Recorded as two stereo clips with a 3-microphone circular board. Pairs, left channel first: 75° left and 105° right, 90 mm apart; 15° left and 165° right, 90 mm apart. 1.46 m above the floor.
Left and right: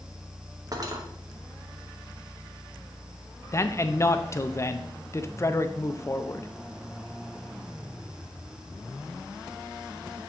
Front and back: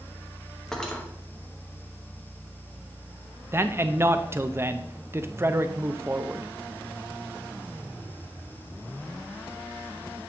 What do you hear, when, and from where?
0.7 s cutlery clinking: 70° right, 1.1 m
3.5 s a man speaking: 130° left, 0.5 m